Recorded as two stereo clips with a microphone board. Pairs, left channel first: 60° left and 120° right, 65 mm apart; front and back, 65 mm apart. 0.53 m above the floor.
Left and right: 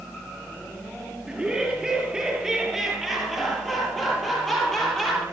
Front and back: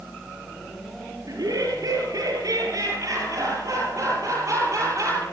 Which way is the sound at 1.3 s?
160° left.